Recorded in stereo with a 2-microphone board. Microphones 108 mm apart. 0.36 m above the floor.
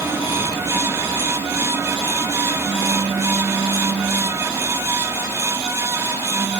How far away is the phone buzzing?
About 4.5 m.